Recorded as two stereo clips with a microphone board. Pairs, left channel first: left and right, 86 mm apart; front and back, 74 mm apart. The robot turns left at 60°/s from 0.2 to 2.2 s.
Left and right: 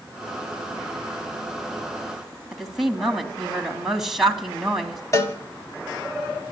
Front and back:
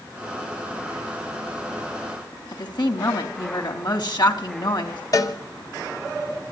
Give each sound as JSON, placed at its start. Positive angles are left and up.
{"t": 2.5, "sound": "a woman speaking", "azimuth_deg": -5, "distance_m": 3.0}
{"t": 5.1, "sound": "a cowbell", "azimuth_deg": 35, "distance_m": 1.4}